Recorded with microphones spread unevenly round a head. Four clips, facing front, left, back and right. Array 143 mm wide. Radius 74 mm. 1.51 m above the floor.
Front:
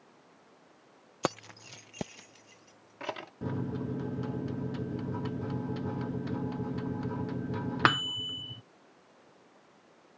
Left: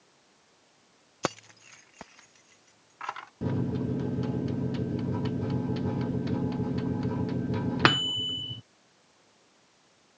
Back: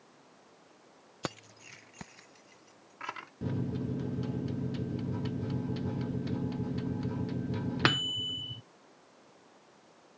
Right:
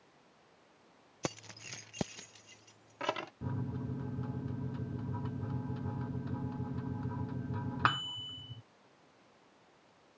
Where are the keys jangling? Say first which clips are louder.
Left 8 dB, front 7 dB; 70° left; by 3.3 s 70° right.